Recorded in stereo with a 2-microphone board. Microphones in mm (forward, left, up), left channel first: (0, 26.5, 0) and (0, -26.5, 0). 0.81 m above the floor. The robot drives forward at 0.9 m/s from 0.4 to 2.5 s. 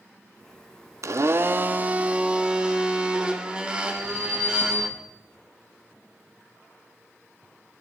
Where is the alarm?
75° right (ahead or behind), 6 m.